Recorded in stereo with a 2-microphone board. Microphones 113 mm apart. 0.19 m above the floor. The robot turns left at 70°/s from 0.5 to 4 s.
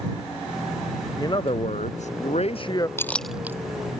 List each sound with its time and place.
1.2 s a man speaking: 150° left; by 2.9 s 30° left
3.0 s a clink: 20° left (ahead or behind); by 3.6 s 20° right (ahead or behind)